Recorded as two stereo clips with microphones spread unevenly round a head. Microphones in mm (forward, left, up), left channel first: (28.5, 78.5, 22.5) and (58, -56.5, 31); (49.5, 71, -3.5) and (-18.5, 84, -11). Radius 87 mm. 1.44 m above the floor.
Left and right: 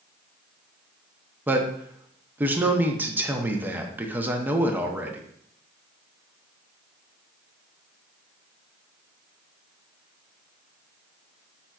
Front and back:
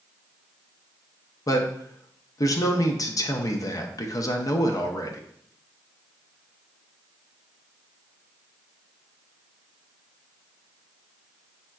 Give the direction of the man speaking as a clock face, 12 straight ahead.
12 o'clock.